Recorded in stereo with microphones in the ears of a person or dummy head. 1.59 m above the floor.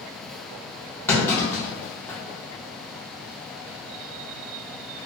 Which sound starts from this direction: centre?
A clunk, at 1.1 s.